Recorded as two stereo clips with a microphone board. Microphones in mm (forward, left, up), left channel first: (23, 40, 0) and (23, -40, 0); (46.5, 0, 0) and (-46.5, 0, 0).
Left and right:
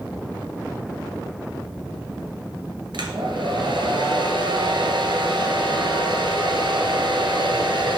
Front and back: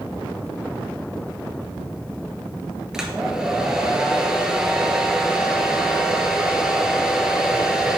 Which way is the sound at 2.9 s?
95° right.